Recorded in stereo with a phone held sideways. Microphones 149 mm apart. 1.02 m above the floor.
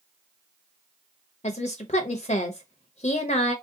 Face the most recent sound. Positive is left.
turn(degrees=45)  # may be behind; listen again after turning